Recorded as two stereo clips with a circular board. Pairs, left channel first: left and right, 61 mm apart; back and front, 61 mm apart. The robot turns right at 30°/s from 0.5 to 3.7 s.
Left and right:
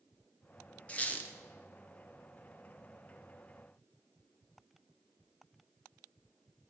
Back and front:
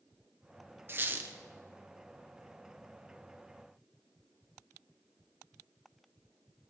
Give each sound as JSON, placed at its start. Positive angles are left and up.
{"t": 0.9, "sound": "a squeak", "azimuth_deg": 35, "distance_m": 0.6}